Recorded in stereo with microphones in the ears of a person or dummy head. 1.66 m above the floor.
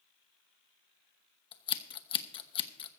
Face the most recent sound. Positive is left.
turn(degrees=30)  # may be behind; listen again after turning